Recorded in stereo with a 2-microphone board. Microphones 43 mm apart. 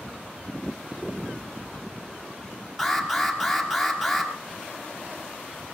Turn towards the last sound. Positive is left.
turn(degrees=0)  # may be behind; listen again after turning